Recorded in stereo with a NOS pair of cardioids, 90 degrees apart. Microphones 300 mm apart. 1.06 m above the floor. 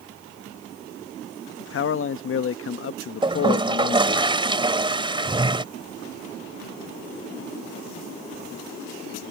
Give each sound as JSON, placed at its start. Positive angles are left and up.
{"t": 1.6, "sound": "a man speaking", "azimuth_deg": 45}
{"t": 3.2, "sound": "a toilet flushing", "azimuth_deg": -15}